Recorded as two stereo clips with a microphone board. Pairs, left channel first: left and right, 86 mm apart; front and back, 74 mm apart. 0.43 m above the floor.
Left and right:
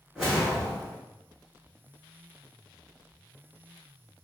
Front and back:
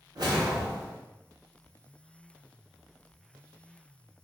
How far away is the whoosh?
About 1.7 m.